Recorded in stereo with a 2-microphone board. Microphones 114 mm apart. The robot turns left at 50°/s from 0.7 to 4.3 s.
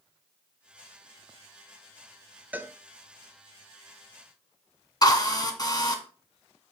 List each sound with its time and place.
2.5 s a cowbell: 15° right (ahead or behind), 0.8 m; by 2.7 s 25° right (ahead or behind), 0.8 m
5.0 s a drill: 35° left (ahead or behind), 1.5 m